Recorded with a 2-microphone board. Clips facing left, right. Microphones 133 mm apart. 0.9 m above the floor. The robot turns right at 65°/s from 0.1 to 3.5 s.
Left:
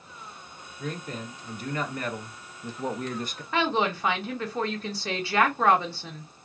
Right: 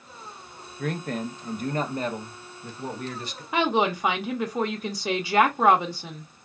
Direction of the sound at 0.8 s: 105° right.